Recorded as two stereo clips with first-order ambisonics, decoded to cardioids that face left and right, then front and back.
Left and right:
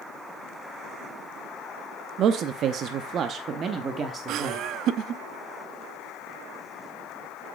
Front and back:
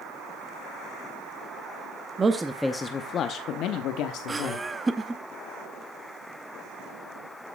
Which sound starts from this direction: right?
Laughter, at 4.3 s.